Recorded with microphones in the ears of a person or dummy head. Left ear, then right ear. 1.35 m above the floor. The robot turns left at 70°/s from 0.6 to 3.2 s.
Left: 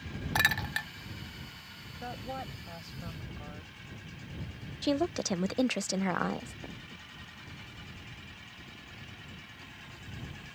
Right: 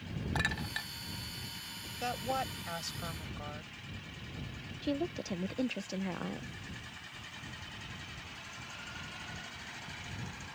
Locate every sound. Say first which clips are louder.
0.3 s a clink: left 7 dB; 30° left (ahead or behind); by 0.9 s 10° left (ahead or behind)
2.0 s a woman speaking: right 5 dB; 70° right; by 3.7 s 155° right
4.8 s a woman speaking: left 6 dB; 45° left (ahead or behind)